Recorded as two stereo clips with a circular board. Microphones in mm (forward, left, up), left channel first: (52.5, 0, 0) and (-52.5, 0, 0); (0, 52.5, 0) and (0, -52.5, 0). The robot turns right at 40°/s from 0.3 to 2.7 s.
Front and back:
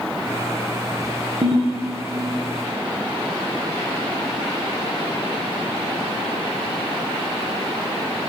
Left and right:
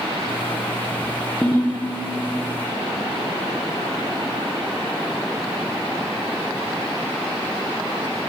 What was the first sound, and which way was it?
A ringtone, 175° left.